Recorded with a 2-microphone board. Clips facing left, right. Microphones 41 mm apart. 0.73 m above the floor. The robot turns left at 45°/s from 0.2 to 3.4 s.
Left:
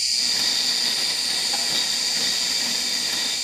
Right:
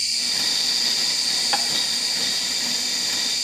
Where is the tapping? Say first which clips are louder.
Right 4 dB; 40° right (ahead or behind), 1.3 m; by 1.6 s 45° right (ahead or behind), 1.3 m.